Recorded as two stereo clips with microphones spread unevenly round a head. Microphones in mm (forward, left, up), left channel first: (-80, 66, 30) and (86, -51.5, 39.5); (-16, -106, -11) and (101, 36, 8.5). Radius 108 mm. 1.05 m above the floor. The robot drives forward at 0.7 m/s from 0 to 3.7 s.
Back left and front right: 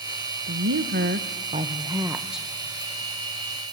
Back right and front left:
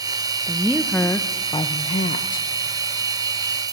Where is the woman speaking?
40° right, 1.3 m; by 2.5 s 130° right, 1.1 m.